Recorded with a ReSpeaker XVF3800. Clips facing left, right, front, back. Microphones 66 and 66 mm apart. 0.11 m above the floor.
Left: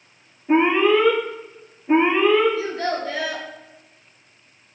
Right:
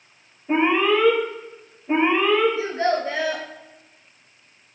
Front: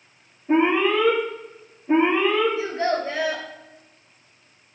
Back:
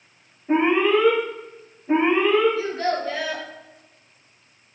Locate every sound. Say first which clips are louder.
0.5 s an alarm: left 3 dB, back 1 dB; 145° left, 1.7 m
2.6 s a child speaking: right 2 dB, front 1 dB; 50° right, 0.8 m